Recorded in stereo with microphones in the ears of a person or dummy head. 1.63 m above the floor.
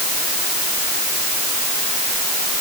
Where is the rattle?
No rattle in this recording.